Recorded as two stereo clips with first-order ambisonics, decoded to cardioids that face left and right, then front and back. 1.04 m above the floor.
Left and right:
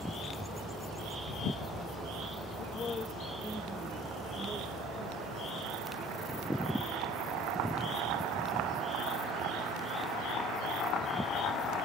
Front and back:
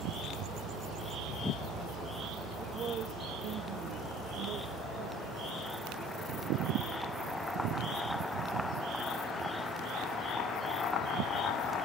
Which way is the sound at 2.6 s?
120° left.